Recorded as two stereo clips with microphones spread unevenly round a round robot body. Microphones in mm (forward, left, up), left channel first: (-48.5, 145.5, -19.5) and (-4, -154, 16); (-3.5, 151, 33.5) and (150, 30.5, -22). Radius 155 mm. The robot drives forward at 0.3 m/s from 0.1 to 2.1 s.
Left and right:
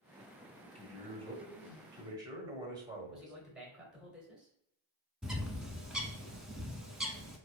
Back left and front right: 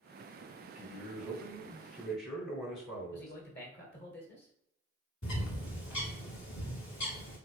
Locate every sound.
0.8 s a man speaking: 150° right, 1.2 m; by 3.3 s 160° right, 1.5 m
3.1 s a man speaking: 175° right, 1.8 m
5.2 s a bird: 170° right, 0.7 m